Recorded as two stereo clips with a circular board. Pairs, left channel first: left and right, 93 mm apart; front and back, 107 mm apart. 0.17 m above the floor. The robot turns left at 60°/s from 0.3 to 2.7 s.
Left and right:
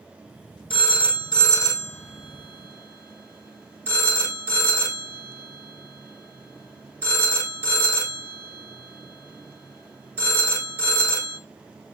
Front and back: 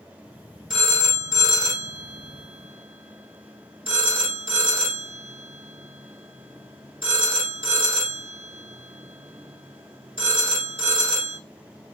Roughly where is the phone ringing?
Left.